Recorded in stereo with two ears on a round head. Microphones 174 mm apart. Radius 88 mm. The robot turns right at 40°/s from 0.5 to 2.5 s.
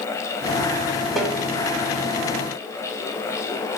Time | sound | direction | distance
1.2 | a snare drum | centre (ahead or behind) | 3 m